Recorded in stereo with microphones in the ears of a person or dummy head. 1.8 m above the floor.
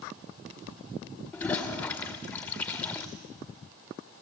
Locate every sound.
1.3 s a toilet flushing: 10° left (ahead or behind), 1.8 m